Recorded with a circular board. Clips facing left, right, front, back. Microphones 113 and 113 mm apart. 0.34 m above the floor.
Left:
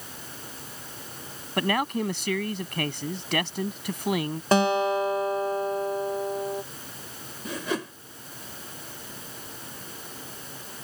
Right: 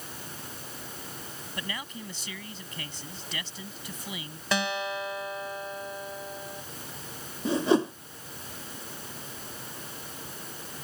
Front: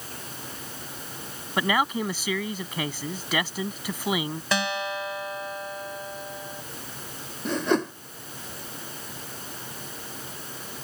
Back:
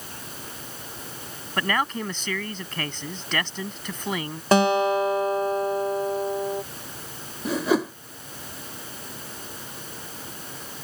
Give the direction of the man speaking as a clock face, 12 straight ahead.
9 o'clock.